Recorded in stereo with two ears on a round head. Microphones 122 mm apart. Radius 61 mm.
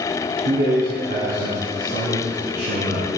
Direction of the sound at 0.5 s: 60° right (ahead or behind).